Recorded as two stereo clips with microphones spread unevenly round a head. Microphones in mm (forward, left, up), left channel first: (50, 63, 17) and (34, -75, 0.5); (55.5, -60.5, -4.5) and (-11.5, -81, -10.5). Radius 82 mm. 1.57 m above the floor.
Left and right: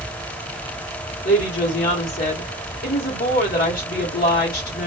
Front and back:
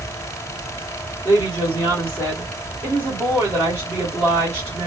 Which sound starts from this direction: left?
A woman speaking, at 1.2 s.